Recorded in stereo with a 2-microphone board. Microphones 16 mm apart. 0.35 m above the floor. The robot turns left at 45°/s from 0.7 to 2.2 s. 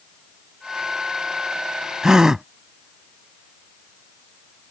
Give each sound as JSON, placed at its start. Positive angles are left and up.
{"t": 2.0, "sound": "a gasp", "side_deg": -40}